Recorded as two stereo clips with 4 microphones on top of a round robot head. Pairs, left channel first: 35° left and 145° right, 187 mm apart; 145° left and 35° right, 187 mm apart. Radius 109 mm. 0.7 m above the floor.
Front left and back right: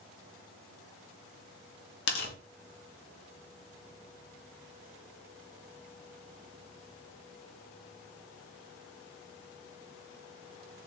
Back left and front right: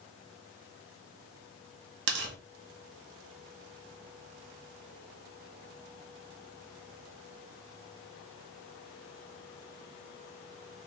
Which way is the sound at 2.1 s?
5° right.